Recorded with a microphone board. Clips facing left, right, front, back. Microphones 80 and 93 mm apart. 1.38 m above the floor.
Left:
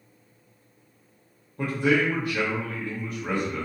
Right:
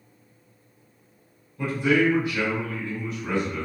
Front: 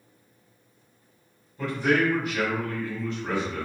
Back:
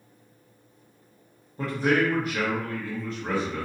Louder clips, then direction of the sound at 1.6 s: Right 1 dB, even; 130° left.